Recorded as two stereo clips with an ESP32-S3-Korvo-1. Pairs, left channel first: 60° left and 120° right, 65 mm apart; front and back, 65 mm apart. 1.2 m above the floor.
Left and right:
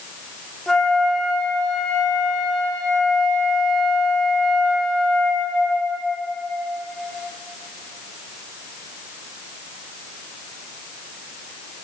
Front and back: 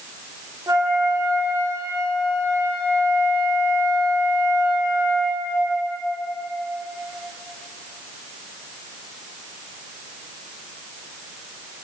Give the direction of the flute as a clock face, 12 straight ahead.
7 o'clock.